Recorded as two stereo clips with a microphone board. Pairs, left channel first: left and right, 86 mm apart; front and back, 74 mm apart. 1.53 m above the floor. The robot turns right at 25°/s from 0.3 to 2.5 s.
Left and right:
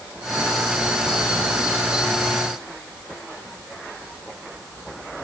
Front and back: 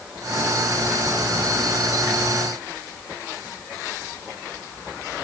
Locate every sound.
Only background noise.